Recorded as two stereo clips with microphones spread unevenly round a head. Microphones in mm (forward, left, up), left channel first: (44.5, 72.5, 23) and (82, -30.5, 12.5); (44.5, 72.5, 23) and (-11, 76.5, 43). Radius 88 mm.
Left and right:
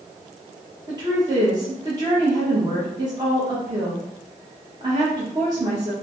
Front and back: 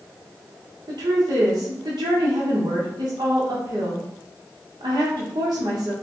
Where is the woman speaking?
140° right, 1.1 m.